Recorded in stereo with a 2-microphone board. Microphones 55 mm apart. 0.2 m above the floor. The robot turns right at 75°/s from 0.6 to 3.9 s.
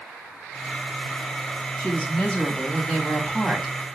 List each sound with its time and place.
1.8 s a woman speaking: 20° left (ahead or behind), 1.1 m; by 3.8 s 10° right (ahead or behind), 1.1 m